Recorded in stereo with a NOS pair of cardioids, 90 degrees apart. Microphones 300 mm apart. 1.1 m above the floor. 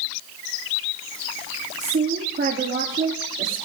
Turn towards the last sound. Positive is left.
turn(degrees=-30)